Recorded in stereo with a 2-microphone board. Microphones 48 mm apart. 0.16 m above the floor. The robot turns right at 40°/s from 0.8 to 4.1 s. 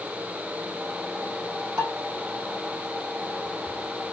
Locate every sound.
1.8 s dishes clattering: 60° right (ahead or behind), 2.5 m; by 1.9 s 65° right (ahead or behind), 2.5 m